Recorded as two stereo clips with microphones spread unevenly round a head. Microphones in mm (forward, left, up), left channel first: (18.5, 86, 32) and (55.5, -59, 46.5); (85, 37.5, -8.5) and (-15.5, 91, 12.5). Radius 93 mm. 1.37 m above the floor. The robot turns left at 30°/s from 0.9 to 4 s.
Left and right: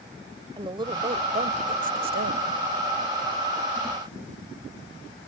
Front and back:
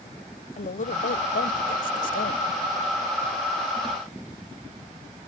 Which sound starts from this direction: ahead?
A woman speaking, at 0.6 s.